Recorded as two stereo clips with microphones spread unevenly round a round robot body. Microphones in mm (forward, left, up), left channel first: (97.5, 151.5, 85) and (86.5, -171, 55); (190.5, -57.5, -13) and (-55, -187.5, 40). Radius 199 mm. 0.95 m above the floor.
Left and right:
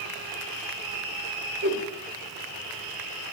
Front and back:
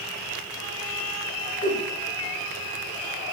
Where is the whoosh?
35° right, 2 m.